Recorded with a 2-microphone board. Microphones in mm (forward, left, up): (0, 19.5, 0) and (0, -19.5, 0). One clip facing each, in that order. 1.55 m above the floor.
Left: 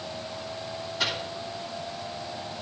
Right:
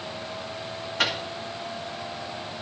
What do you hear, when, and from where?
1.0 s a microwave: 70° right (ahead or behind), 1.9 m